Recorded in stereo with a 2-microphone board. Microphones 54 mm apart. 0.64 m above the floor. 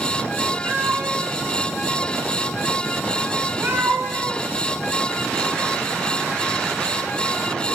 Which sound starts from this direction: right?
A cat meowing, at 0.7 s.